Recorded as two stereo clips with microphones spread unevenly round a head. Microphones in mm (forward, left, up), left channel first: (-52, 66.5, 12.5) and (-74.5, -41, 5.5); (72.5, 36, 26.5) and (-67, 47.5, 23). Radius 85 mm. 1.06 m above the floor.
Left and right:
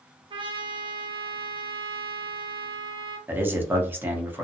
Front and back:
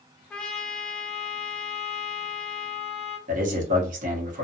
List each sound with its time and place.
0.3 s a trumpet: 85° right, 0.6 m
3.3 s a man speaking: 170° right, 0.9 m